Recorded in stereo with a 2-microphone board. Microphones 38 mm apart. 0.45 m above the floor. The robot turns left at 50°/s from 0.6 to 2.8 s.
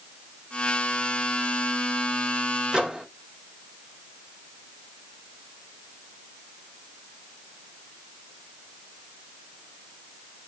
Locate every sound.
2.7 s a microwave: 25° right (ahead or behind), 0.9 m; by 3.1 s 20° right (ahead or behind), 0.9 m